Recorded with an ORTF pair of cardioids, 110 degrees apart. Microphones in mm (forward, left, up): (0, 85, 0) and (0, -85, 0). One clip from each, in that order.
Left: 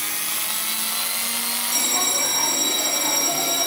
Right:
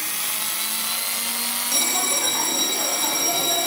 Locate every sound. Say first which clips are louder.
1.7 s a bell: left 1 dB; 60° right, 2.5 m